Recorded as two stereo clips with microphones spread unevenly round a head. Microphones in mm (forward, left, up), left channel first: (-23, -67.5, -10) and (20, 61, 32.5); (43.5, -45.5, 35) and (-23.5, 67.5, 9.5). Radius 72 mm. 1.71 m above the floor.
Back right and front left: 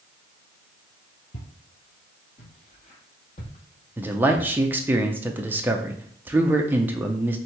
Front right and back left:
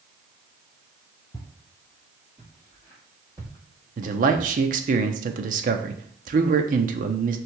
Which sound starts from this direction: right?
Footsteps, at 1.3 s.